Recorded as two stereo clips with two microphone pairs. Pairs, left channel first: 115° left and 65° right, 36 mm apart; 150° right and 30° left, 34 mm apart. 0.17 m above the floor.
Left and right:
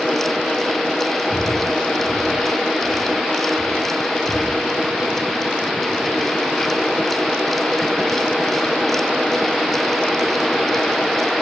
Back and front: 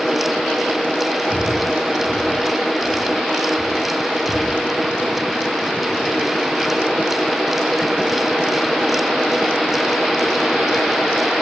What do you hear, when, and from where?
1.3 s breathing: 55° left, 5 m